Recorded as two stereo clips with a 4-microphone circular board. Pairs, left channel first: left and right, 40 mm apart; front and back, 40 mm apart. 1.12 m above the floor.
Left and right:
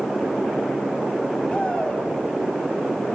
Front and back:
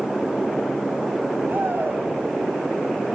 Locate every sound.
1.5 s a shout: 155° left, 7.5 m